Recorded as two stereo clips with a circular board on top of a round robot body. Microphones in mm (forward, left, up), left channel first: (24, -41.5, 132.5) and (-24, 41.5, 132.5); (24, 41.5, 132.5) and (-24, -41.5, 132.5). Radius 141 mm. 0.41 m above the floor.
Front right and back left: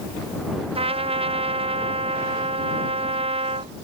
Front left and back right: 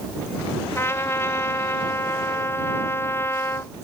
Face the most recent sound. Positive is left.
turn(degrees=125)